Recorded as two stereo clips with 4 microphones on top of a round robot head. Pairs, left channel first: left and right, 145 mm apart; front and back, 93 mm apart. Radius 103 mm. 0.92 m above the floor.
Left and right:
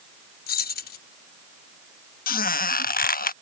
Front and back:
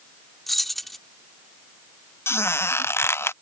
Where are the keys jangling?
90° left.